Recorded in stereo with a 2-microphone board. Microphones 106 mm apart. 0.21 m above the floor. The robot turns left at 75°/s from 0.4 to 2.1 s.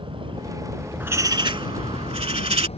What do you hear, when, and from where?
0.0 s a vehicle: 125° right; by 2.8 s 105° left
1.0 s a bird: 20° right; by 2.7 s 100° right